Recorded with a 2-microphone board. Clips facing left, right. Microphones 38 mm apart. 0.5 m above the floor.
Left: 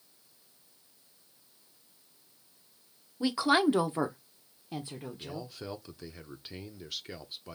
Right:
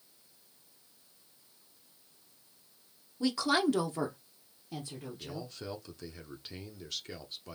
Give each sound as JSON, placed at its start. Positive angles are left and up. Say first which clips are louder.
{"t": 3.2, "sound": "a woman speaking", "louder": "left 3 dB", "side_deg": 15, "distance_m": 0.8}
{"t": 5.2, "sound": "a man speaking", "louder": "even", "side_deg": 10, "distance_m": 0.8}